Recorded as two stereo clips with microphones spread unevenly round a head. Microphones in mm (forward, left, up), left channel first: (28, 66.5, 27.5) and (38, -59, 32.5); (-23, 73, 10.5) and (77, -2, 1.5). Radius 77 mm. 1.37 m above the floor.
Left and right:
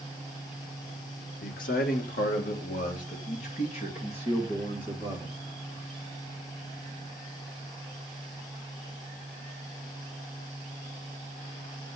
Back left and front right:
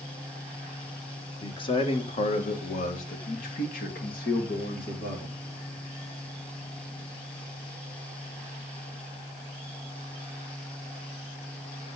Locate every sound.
1.4 s a man speaking: 90° left, 1.4 m; by 5.4 s 155° left, 2.5 m